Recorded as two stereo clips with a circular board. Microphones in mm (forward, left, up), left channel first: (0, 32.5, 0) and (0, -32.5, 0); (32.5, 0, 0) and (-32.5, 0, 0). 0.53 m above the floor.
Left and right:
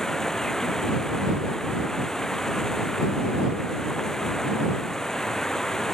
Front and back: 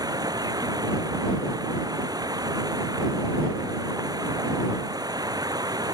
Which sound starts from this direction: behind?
Running water, at 0.0 s.